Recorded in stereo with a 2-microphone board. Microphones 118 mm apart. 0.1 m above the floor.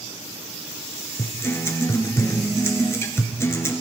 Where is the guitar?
25° left (ahead or behind), 1.2 m.